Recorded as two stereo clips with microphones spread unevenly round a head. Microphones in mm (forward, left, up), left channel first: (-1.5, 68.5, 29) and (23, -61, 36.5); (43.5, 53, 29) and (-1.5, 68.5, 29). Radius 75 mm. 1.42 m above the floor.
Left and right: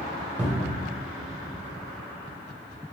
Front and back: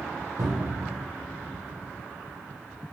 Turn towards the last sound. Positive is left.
turn(degrees=-160)